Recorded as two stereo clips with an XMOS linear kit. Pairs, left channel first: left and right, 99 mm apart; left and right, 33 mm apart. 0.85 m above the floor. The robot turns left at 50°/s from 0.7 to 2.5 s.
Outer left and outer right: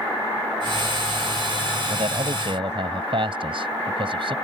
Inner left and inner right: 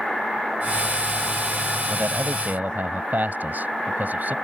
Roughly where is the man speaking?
Right.